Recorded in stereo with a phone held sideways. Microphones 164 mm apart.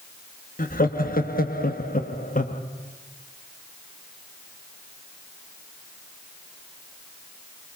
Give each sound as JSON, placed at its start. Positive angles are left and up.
{"t": 0.6, "sound": "laughter", "side_deg": 55, "distance_m": 1.6}